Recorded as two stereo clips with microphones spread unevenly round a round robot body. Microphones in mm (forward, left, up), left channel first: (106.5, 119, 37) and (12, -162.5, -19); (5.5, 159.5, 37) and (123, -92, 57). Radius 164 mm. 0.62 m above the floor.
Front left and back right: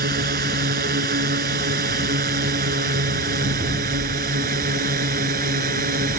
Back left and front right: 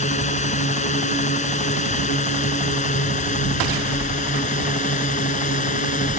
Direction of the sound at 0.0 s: 175° right.